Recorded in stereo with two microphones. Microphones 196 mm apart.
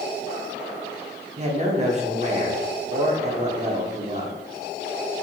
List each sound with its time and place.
1.4 s a man speaking: 35° right (ahead or behind), 0.7 m